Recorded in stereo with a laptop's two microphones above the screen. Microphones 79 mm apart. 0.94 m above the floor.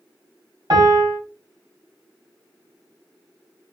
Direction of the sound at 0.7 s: 75° right (ahead or behind).